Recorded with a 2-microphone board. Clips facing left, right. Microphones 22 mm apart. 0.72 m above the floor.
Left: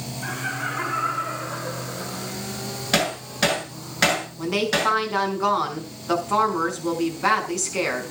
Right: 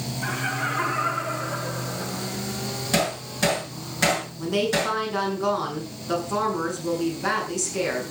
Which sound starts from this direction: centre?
Laughter, at 0.2 s.